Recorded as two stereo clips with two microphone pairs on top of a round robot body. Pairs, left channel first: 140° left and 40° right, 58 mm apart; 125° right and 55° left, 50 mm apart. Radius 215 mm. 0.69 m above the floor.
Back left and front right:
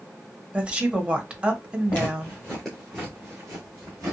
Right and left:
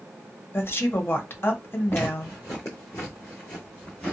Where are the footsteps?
175° right, 0.9 m; by 4.1 s 55° right, 1.1 m.